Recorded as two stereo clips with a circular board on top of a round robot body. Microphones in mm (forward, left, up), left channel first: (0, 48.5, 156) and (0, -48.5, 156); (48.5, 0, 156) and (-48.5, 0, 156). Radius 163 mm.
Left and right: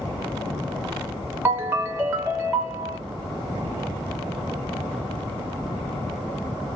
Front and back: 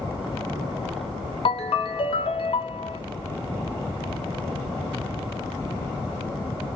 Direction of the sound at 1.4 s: 25° right.